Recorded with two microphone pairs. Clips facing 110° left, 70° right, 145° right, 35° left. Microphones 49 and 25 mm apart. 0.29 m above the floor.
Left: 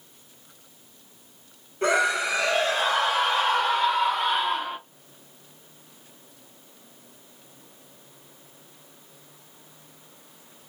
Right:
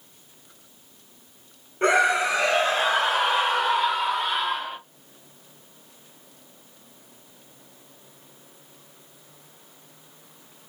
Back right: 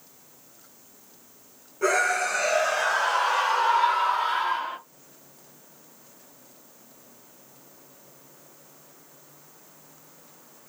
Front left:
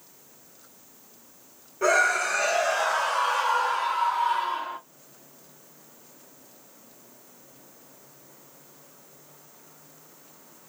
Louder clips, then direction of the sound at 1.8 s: Right 3 dB, front left 1 dB; 30° right.